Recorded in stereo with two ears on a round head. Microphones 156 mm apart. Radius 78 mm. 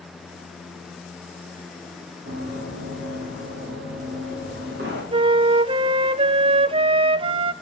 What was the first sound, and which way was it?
Running footsteps, 55° right (ahead or behind).